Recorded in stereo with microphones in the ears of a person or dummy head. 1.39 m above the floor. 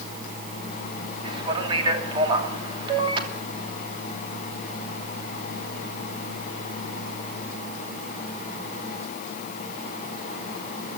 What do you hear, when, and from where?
1.2 s a man speaking: 30° right (ahead or behind), 3 m